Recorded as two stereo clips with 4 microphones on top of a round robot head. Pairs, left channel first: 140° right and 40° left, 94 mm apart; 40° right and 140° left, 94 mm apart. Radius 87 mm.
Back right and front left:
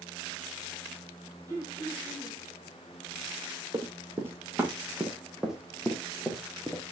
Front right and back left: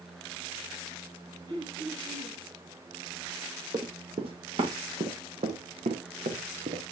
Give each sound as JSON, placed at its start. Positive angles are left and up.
{"t": 1.5, "sound": "throat clearing", "azimuth_deg": 95, "distance_m": 7.0}
{"t": 3.7, "sound": "running footsteps", "azimuth_deg": 100, "distance_m": 2.0}